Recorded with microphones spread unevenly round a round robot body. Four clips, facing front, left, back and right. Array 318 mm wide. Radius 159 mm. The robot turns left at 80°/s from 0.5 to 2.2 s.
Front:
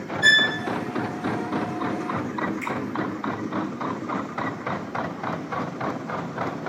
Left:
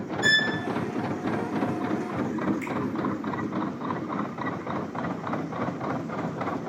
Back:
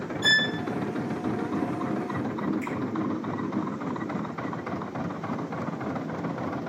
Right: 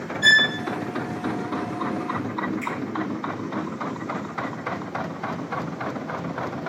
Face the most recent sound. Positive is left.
turn(degrees=45)